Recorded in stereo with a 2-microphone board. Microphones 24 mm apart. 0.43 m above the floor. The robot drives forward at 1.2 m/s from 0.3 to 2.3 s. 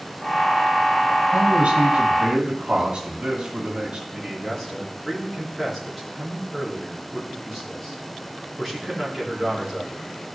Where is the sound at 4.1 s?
Centre (ahead or behind), 4.5 m.